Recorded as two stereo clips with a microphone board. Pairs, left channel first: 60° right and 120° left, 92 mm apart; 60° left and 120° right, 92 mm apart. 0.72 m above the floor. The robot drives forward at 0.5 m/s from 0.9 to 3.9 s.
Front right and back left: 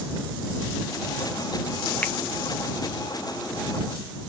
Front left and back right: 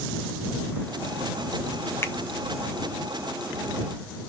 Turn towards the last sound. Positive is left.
turn(degrees=170)